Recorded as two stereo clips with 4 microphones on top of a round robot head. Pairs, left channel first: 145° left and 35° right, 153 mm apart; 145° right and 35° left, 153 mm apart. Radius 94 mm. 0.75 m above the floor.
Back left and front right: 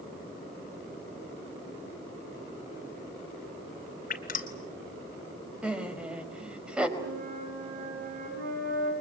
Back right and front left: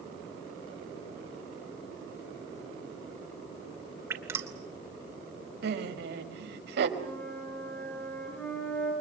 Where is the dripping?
110° left, 3 m.